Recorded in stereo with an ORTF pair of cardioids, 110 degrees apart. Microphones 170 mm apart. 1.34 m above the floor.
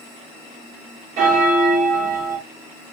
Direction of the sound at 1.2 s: 55° right.